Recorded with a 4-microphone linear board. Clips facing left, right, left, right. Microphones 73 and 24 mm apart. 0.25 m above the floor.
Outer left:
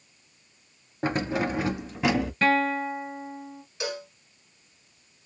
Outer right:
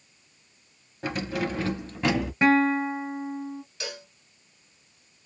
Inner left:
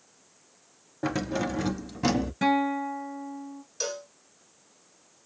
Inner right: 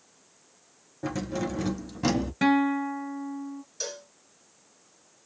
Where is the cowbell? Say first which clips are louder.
Outer left 6 dB, inner left 4 dB; 20° left (ahead or behind), 2 m.